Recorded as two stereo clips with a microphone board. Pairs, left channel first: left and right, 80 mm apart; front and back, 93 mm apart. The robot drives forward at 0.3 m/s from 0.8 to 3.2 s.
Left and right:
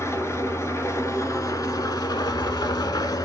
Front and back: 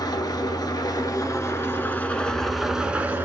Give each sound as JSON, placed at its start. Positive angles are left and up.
{"t": 0.0, "sound": "an engine running", "azimuth_deg": 40, "distance_m": 0.7}